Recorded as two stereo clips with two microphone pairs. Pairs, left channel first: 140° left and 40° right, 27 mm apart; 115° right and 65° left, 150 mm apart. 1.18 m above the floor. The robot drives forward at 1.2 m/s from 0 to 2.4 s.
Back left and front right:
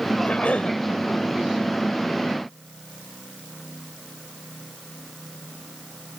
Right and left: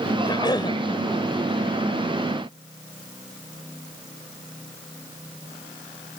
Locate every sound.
0.2 s a cough: 175° right